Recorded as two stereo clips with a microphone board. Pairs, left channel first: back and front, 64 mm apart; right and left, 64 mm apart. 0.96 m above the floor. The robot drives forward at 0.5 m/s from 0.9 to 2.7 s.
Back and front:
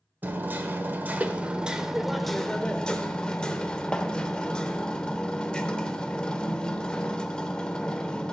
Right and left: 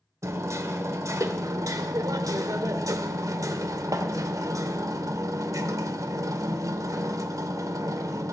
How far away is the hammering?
About 1.2 m.